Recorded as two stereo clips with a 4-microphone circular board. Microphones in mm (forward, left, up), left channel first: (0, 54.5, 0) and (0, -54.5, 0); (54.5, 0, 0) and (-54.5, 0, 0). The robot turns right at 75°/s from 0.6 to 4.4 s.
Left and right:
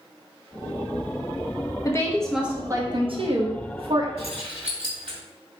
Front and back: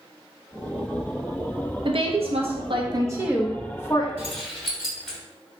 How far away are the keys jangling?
About 2 m.